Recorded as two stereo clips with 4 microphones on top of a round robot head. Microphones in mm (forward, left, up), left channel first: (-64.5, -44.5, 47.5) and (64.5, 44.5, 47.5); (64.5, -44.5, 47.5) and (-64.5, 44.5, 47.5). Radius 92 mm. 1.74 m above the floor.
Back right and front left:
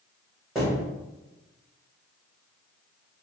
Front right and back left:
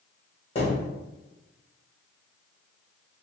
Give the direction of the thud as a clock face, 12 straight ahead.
2 o'clock.